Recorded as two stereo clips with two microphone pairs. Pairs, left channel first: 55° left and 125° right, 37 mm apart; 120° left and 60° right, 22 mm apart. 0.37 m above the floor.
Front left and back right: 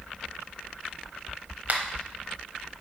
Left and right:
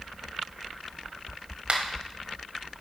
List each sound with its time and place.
1.7 s a finger snap: 100° right, 1.3 m